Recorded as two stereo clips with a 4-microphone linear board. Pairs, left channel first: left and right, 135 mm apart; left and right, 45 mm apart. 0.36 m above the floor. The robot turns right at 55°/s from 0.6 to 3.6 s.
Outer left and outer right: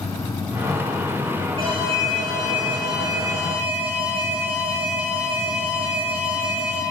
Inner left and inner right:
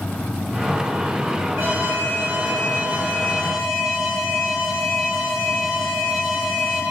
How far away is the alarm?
About 3.5 m.